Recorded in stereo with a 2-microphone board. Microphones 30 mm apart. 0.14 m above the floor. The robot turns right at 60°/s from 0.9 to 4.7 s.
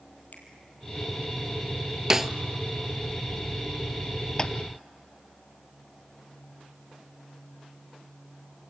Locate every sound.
0.3 s a finger snap: 65° left (ahead or behind), 3 m
2.1 s a snare drum: 20° right (ahead or behind), 0.6 m; by 2.3 s 10° right (ahead or behind), 0.6 m
4.4 s tapping: 20° left (ahead or behind), 0.8 m; by 4.5 s 30° left (ahead or behind), 0.8 m